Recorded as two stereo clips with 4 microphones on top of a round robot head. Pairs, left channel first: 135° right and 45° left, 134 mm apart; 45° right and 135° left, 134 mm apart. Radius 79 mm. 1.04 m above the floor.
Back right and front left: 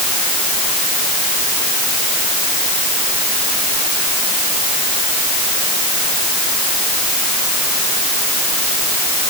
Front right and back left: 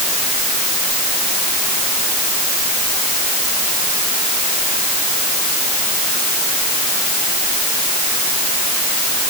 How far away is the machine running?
I don't hear a machine running.